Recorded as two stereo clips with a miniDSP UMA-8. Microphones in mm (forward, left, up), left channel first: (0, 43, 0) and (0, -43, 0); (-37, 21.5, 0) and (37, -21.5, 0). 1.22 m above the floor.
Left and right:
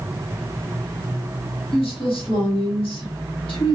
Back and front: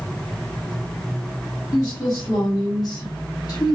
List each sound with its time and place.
1.7 s a woman speaking: 105° left, 1.3 m